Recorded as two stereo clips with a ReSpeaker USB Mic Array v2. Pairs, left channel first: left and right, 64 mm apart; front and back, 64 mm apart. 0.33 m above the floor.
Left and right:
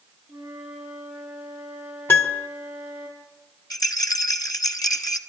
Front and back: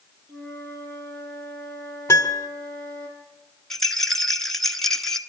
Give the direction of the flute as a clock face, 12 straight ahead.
6 o'clock.